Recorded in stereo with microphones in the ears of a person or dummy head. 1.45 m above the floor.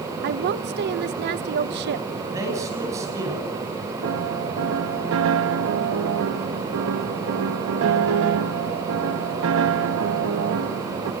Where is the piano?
70° right (ahead or behind), 1.6 m.